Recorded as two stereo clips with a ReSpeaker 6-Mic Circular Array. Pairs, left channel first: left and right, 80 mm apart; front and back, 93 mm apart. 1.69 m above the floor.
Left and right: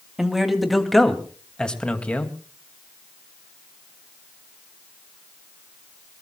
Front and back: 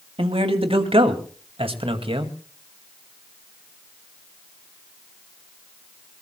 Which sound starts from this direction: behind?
A man speaking, at 0.2 s.